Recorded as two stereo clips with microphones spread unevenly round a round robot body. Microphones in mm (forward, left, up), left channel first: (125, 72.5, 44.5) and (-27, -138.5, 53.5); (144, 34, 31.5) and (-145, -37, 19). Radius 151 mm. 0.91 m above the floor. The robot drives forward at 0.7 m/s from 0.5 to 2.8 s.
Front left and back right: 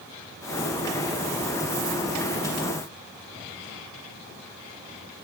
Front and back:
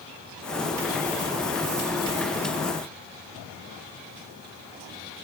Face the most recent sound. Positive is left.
No sound to turn to.